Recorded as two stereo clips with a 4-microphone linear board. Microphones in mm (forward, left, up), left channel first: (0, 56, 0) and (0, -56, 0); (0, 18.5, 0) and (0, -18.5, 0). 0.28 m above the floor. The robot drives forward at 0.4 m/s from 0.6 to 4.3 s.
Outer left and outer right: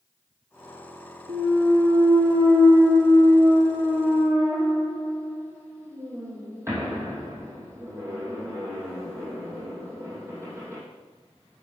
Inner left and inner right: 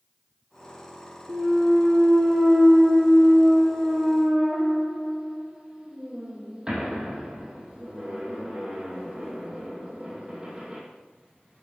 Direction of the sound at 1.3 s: 45° right (ahead or behind).